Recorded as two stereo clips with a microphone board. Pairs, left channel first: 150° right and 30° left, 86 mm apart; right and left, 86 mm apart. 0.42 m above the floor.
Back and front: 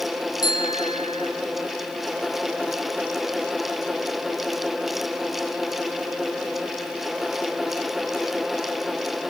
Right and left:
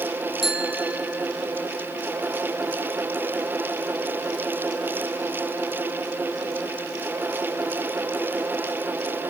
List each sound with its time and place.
0.4 s a bicycle bell: 175° left, 3 m